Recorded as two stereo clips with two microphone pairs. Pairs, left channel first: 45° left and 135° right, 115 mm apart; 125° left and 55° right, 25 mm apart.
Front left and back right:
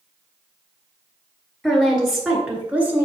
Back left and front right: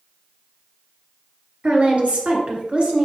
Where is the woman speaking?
40° right, 2.5 m; by 3.1 s 65° right, 2.0 m.